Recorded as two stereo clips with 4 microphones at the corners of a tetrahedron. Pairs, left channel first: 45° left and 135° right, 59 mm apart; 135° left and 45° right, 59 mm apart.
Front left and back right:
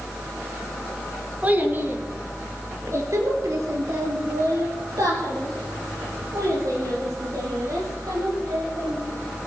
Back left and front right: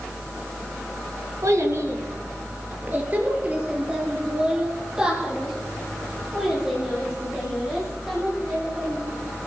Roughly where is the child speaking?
Right.